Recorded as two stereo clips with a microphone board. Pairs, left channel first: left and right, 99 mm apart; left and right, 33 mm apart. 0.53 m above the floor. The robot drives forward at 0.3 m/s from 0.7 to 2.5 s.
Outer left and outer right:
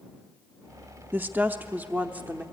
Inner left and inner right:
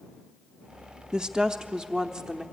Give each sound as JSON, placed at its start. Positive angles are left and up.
{"t": 1.1, "sound": "a woman speaking", "side_deg": -20, "distance_m": 0.7}